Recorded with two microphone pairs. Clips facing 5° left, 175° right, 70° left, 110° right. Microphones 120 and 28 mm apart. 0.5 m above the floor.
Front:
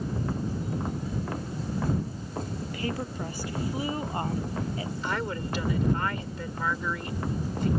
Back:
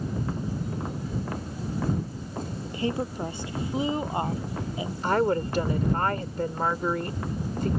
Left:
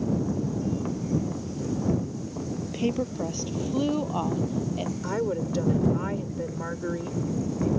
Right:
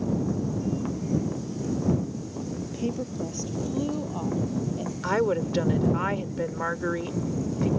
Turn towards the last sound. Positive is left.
turn(degrees=-150)